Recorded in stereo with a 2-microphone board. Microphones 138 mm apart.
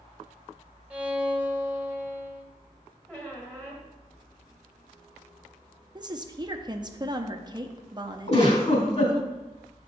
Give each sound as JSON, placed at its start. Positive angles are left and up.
{"t": 0.9, "sound": "a violin", "side_deg": -10, "distance_m": 1.1}
{"t": 3.1, "sound": "a squeak", "side_deg": 10, "distance_m": 1.9}
{"t": 6.0, "sound": "a woman speaking", "side_deg": -30, "distance_m": 0.7}
{"t": 8.3, "sound": "a giggle", "side_deg": 50, "distance_m": 3.0}